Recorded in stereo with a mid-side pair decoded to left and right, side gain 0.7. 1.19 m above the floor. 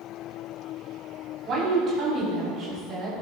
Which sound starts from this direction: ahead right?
A woman speaking, at 1.4 s.